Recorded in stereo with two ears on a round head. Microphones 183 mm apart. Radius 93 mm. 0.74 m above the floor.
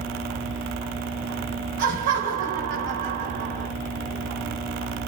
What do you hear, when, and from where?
1.8 s laughter: 45° right (ahead or behind), 1.1 m